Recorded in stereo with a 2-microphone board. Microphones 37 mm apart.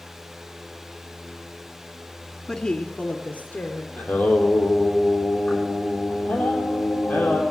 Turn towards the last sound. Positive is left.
turn(degrees=45)  # may be behind; listen again after turning